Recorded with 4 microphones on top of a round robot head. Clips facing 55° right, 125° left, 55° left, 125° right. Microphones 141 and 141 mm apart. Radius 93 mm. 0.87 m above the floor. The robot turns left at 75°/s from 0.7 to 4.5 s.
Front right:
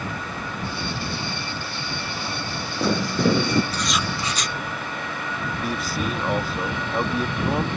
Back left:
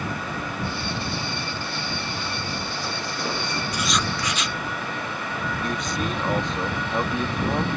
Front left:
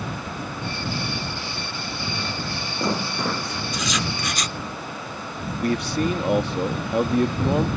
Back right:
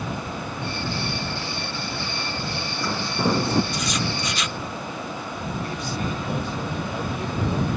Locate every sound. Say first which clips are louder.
2.1 s footsteps: even, even; 40° left; by 3.6 s 75° right
3.7 s writing: even, even; 50° left; by 4.6 s 10° right
5.6 s a man speaking: front right 1 dB, front left 10 dB; 30° left